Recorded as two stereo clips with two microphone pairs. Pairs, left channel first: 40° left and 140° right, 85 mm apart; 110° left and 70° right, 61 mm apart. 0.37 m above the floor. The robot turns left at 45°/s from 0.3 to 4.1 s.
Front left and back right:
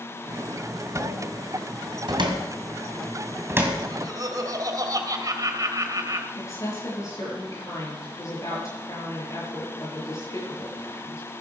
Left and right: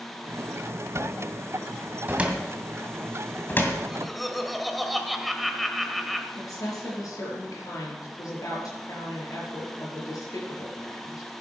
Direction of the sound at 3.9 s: 150° right.